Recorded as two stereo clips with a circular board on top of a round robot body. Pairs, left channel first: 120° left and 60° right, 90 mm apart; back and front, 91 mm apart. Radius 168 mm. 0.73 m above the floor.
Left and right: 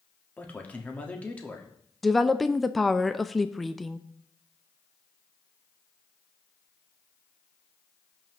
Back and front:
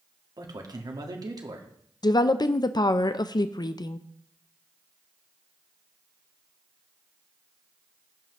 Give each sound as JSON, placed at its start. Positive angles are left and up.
{"t": 0.4, "sound": "a man speaking", "azimuth_deg": 45, "distance_m": 1.6}
{"t": 2.0, "sound": "a woman speaking", "azimuth_deg": -150, "distance_m": 0.6}